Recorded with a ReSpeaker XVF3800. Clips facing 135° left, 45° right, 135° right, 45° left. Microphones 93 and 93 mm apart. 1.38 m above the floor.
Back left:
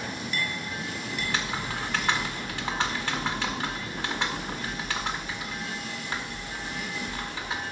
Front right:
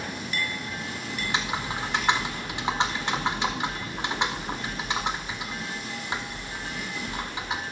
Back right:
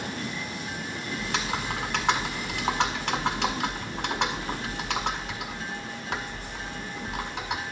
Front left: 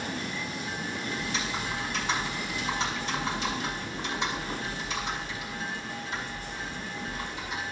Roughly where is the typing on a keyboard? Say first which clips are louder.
Front right 2 dB, back right 2 dB; behind right.